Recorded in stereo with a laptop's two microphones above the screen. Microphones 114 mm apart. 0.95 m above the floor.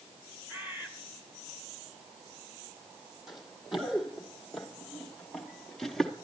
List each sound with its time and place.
0.5 s a bird: 25° right (ahead or behind), 2 m
3.3 s running footsteps: 5° right (ahead or behind), 1.6 m; by 6.1 s 5° left (ahead or behind), 0.9 m